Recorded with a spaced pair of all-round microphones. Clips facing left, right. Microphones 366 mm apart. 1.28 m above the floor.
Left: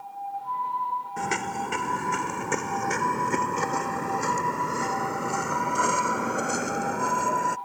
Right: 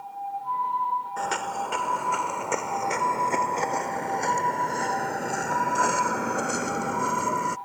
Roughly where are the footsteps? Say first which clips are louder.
Left 2 dB; left.